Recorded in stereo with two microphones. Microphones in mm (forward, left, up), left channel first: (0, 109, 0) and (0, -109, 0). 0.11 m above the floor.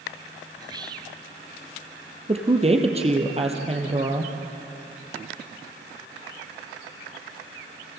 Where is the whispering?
20° right (ahead or behind), 1.4 m.